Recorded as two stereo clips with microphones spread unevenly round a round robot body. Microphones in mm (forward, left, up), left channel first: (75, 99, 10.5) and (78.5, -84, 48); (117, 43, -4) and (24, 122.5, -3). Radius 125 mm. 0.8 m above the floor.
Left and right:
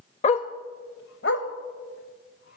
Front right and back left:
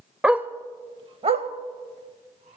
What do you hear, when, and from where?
0.2 s a dog barking: 65° left, 0.5 m; by 2.6 s 140° left, 1.3 m